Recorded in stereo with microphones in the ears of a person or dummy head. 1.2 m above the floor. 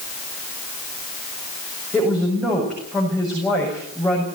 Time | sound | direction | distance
1.9 | a woman speaking | 10° left (ahead or behind) | 7.5 m